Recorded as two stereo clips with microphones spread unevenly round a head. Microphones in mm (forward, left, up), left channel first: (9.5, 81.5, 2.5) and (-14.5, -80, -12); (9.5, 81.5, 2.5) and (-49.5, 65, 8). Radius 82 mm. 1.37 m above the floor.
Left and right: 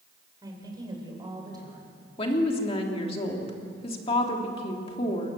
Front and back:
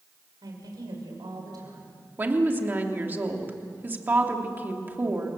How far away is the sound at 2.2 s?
About 3 m.